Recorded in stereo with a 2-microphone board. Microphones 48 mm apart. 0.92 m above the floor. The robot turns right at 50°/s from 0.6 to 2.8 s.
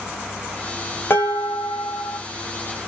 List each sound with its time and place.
1.1 s dishes clattering: 60° left, 1.5 m; by 2.2 s 115° left, 1.5 m